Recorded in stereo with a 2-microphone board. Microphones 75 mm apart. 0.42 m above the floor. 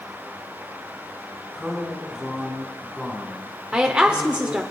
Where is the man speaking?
5° right (ahead or behind), 3 m; by 4.6 s 5° left (ahead or behind), 4.5 m.